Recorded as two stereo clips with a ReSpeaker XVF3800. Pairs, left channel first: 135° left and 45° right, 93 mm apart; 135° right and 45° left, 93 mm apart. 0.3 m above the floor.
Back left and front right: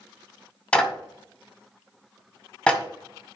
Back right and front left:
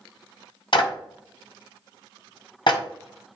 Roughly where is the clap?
Behind right.